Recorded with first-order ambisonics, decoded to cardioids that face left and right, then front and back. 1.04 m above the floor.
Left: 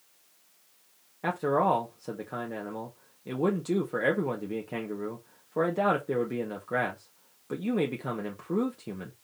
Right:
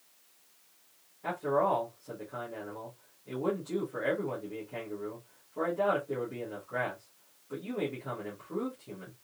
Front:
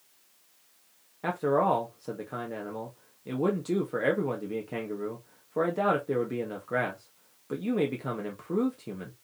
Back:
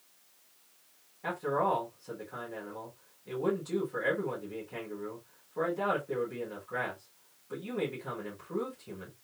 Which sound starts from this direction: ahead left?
A man speaking, at 1.2 s.